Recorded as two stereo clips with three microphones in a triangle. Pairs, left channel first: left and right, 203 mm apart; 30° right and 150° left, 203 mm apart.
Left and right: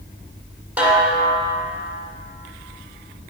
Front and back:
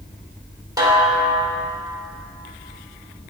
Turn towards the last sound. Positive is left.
turn(degrees=-165)